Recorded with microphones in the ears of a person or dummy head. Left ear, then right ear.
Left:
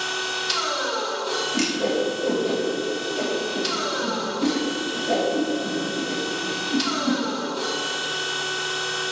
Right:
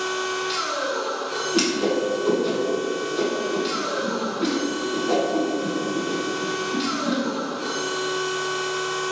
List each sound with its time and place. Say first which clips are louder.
0.0 s a machine running: even; 30° left (ahead or behind), 1.4 m
1.5 s a whoosh: right 4 dB; 60° right (ahead or behind), 2.5 m